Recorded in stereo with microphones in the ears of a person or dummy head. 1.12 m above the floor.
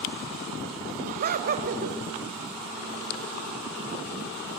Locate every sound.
1.0 s laughter: 50° right (ahead or behind), 2.0 m